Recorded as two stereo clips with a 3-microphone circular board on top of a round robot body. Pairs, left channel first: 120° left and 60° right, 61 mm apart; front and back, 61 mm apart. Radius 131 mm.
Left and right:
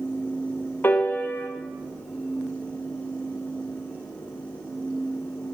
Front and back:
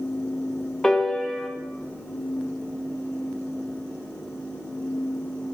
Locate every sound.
0.8 s a piano: 80° left, 0.8 m